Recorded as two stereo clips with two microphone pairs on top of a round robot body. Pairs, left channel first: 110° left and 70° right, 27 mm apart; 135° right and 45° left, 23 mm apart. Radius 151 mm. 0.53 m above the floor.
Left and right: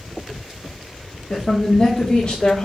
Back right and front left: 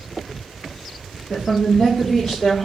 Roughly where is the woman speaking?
Behind.